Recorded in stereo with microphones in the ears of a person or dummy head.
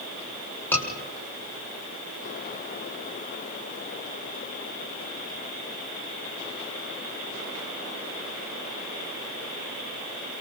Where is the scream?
10° left (ahead or behind), 7.5 m.